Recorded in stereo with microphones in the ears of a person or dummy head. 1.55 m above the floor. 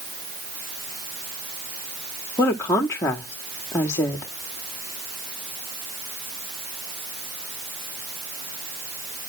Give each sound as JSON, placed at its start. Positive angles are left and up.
{"t": 2.4, "sound": "a woman speaking", "side_deg": 10, "distance_m": 0.9}